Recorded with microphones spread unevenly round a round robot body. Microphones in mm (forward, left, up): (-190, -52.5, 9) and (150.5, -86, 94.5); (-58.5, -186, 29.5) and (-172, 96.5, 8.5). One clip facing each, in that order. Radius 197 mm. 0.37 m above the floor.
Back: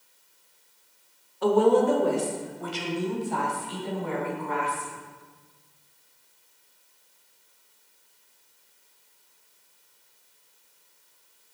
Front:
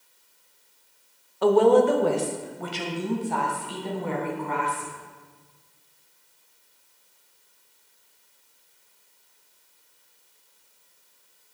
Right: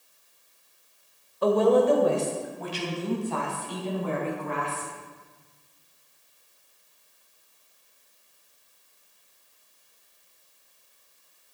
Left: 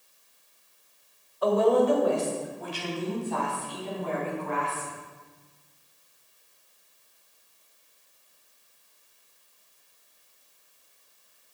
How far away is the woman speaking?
About 1.4 m.